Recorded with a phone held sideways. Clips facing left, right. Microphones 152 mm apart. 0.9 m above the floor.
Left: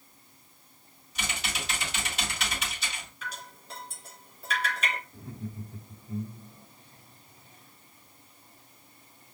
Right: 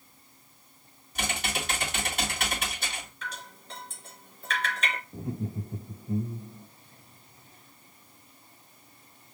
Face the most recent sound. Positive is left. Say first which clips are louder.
# right 6 dB
turn(degrees=-50)  # may be behind; listen again after turning